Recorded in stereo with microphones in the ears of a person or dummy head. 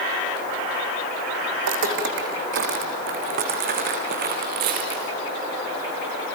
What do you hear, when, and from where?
1.6 s footsteps: 60° right (ahead or behind), 2.5 m; by 5.1 s 45° right (ahead or behind), 4.5 m